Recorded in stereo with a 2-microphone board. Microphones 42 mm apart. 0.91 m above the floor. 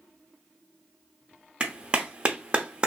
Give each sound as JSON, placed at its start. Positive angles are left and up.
{"t": 1.6, "sound": "a clap", "side_deg": -25, "distance_m": 0.6}